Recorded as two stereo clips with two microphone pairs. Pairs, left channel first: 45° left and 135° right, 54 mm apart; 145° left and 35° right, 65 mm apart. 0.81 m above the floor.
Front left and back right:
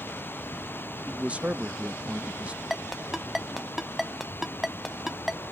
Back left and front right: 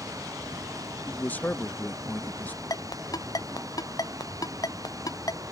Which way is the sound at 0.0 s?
10° right.